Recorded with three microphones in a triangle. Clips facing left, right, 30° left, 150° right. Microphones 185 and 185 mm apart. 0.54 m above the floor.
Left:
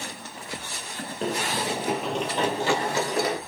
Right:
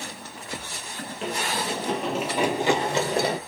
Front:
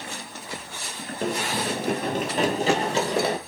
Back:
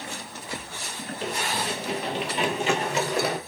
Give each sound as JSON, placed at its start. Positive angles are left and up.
{"t": 1.2, "sound": "running footsteps", "azimuth_deg": 50, "distance_m": 0.7}